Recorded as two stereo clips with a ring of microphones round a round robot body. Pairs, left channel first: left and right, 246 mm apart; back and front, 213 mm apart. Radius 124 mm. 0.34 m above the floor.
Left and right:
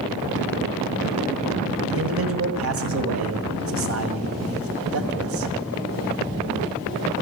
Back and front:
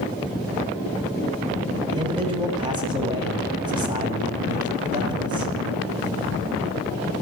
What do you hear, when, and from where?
1.9 s a man speaking: 70° right, 2 m